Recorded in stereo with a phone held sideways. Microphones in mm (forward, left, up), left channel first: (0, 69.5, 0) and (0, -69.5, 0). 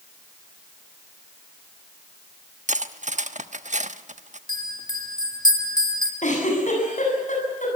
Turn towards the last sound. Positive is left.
turn(degrees=60)  # may be behind; listen again after turning